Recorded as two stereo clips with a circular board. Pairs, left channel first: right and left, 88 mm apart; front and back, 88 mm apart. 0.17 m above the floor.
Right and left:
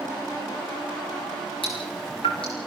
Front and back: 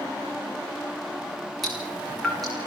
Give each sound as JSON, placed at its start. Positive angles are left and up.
{"t": 1.6, "sound": "dripping", "azimuth_deg": -90, "distance_m": 9.0}